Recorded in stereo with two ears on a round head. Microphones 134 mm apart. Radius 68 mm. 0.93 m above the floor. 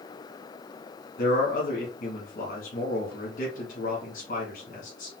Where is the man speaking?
55° left (ahead or behind), 1.2 m.